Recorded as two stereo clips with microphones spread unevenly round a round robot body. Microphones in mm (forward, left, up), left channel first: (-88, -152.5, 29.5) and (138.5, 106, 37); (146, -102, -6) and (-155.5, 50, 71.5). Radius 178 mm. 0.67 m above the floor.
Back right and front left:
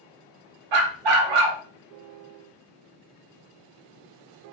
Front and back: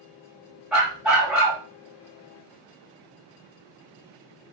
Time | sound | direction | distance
0.7 | a dog barking | 70° left | 0.7 m